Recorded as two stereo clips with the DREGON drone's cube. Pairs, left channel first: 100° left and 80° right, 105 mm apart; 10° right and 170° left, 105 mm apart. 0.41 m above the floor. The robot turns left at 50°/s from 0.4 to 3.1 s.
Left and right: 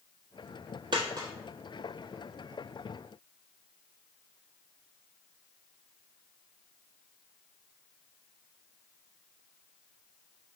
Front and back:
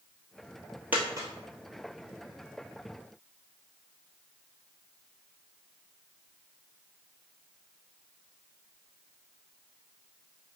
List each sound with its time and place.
0.9 s a dropped coin: 115° right, 1.3 m; by 1.3 s 135° right, 1.3 m